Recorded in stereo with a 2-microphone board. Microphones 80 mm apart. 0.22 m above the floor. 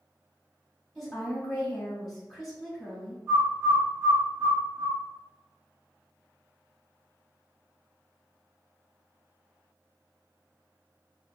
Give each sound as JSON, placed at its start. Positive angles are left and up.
{"t": 0.9, "sound": "a woman speaking", "side_deg": 0, "distance_m": 1.6}
{"t": 3.3, "sound": "a bird", "side_deg": -30, "distance_m": 1.5}